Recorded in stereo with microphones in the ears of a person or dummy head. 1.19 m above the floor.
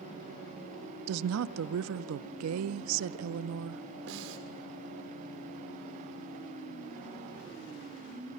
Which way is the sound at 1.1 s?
80° right.